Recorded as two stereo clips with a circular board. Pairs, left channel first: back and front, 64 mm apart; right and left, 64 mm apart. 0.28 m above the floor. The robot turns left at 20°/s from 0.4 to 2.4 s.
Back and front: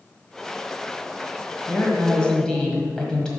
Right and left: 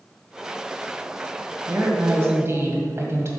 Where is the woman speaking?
120° left, 1.5 m; by 3.3 s 105° left, 1.5 m.